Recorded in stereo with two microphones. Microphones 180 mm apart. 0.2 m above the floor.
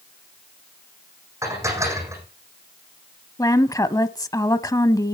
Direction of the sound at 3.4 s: 20° left (ahead or behind).